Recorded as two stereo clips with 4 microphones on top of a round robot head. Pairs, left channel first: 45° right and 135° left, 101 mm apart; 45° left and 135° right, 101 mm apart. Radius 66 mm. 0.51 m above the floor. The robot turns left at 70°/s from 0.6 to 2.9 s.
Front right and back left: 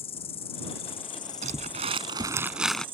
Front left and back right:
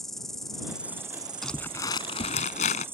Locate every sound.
0.0 s an insect: 40° right; by 3.0 s 160° left
1.4 s crumpling: 135° left; by 2.9 s 35° left